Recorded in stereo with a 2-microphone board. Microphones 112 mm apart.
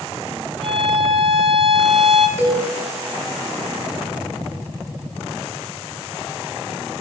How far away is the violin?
About 1.0 m.